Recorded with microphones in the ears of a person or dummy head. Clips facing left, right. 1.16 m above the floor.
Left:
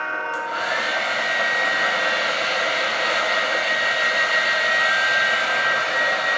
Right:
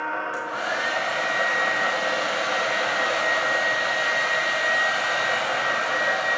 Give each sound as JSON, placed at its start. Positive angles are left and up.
{"t": 0.3, "sound": "a hair dryer", "side_deg": 35, "distance_m": 1.2}